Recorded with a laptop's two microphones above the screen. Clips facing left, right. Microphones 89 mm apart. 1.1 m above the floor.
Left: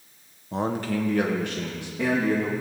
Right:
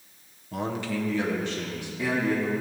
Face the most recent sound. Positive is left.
turn(degrees=55)  # may be behind; listen again after turning